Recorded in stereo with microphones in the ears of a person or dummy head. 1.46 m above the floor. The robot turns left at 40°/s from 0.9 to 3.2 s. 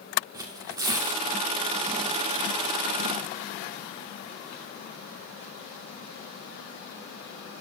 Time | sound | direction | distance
0.3 | tearing paper | 20° right (ahead or behind) | 1.8 m